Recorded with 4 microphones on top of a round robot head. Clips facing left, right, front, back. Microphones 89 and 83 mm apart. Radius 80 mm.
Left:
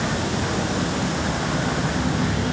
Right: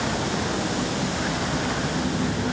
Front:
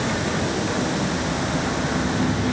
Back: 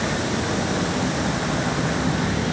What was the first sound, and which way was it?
Only background noise.